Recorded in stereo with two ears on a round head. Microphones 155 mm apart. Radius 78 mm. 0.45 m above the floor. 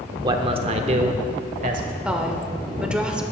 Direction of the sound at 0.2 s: 25° right (ahead or behind).